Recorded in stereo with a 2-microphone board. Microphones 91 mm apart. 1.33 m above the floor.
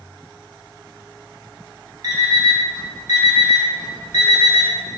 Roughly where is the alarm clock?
Right.